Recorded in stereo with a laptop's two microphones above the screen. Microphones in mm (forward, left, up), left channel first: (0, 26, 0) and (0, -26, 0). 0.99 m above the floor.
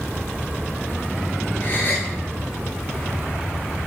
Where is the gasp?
40° left (ahead or behind), 7.5 m.